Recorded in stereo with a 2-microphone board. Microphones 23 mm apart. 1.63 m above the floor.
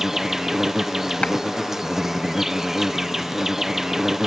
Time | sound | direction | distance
0.0 | an insect | 20° right (ahead or behind) | ?
1.2 | a clap | 85° left | ?